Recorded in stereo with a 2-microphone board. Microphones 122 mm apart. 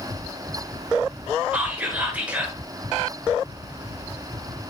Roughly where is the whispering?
Centre.